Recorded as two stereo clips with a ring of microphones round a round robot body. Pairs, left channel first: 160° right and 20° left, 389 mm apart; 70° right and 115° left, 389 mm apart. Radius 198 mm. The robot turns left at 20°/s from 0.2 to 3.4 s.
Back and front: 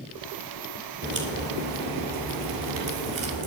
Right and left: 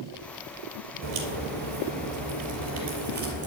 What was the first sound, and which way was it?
A crack, 90° left.